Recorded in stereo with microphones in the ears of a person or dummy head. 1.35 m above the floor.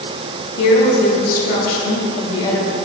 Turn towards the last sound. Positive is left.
turn(degrees=10)  # may be behind; listen again after turning